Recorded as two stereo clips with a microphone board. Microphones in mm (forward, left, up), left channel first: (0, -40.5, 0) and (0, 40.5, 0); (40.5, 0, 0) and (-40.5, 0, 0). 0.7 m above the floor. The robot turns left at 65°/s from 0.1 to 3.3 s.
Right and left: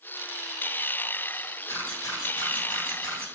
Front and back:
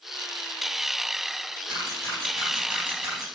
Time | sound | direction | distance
1.7 | a camera shutter | 35° right | 4.5 m